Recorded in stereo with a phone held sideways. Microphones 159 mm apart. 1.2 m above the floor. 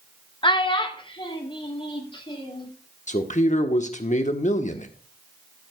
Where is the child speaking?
30° left (ahead or behind), 0.9 m.